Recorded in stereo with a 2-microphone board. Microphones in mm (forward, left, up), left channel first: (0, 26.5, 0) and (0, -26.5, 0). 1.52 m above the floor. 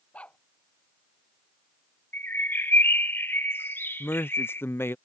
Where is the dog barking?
25° left (ahead or behind).